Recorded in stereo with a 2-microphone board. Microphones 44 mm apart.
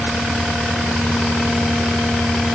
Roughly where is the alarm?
No alarm in this recording.